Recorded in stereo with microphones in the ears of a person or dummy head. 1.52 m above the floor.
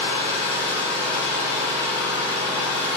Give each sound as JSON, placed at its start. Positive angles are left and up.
{"t": 0.0, "sound": "an engine running", "side_deg": -30, "distance_m": 3.0}